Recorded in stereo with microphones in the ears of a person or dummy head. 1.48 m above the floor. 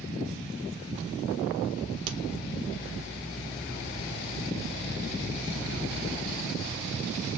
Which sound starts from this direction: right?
A crack, at 2.1 s.